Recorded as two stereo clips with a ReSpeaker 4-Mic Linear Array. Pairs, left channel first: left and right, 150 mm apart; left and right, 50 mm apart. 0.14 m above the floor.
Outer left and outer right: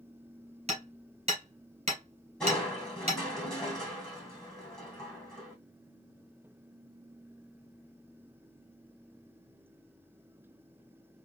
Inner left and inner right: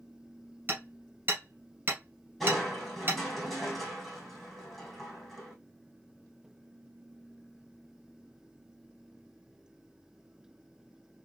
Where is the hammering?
45° right (ahead or behind), 2 m.